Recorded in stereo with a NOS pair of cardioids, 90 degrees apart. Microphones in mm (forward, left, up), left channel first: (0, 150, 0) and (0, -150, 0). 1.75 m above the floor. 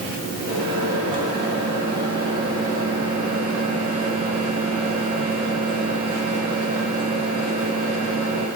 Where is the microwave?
15° right, 2.5 m.